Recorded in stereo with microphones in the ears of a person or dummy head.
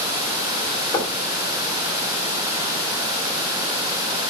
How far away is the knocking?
About 2.5 m.